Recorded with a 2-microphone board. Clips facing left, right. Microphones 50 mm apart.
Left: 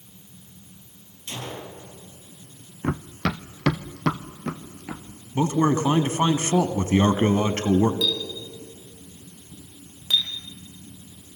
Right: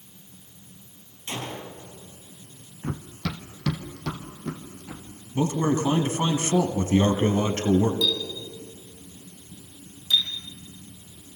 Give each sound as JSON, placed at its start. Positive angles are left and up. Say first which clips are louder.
{"t": 1.3, "sound": "a gunshot", "louder": "right 1 dB", "side_deg": -30, "distance_m": 5.0}
{"t": 2.8, "sound": "running footsteps", "louder": "left 6 dB", "side_deg": 70, "distance_m": 0.9}
{"t": 5.3, "sound": "a man speaking", "louder": "left 3 dB", "side_deg": 35, "distance_m": 1.5}
{"t": 8.0, "sound": "a clink", "louder": "even", "side_deg": 50, "distance_m": 5.0}